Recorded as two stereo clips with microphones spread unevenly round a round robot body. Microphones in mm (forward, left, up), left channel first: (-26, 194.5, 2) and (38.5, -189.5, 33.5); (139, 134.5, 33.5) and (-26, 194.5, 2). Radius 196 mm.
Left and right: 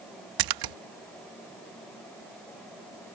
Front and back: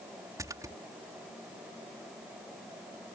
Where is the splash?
120° right.